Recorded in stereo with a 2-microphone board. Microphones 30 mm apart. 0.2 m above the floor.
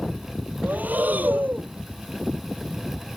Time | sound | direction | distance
0.6 | breathing | 70° right (ahead or behind) | ?